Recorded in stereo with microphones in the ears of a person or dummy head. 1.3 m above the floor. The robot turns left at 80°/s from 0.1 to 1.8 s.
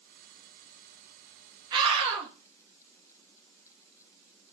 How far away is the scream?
About 2.5 m.